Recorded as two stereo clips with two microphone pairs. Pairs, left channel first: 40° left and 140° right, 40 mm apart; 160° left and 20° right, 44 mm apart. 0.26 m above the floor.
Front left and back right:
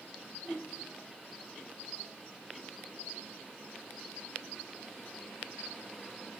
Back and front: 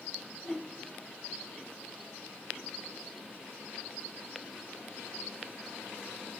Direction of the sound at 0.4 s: 80° left.